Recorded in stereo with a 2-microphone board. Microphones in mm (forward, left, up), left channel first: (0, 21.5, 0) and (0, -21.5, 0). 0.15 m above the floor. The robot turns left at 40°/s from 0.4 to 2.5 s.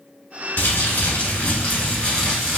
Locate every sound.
0.6 s crumpling: 85° left, 1.3 m; by 2.6 s 10° left, 1.3 m